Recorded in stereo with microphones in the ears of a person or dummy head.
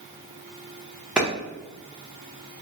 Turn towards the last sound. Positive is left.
turn(degrees=0)  # may be behind; listen again after turning